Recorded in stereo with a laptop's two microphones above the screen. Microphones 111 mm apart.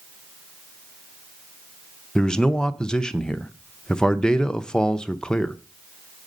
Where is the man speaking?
5° left (ahead or behind), 0.6 m.